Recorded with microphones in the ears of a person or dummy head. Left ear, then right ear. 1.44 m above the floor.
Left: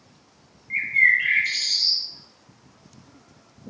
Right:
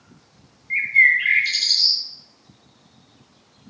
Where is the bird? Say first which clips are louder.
Right 3 dB; 10° right (ahead or behind), 0.6 m.